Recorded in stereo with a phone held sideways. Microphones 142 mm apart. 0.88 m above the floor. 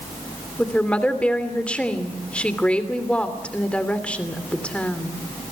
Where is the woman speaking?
10° left (ahead or behind), 3 m.